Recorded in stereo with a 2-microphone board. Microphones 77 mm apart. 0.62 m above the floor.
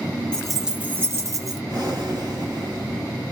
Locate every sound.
0.3 s keys jangling: 10° left (ahead or behind), 0.5 m; by 1.6 s 50° right (ahead or behind), 0.8 m
1.7 s breathing: 55° right (ahead or behind), 1.5 m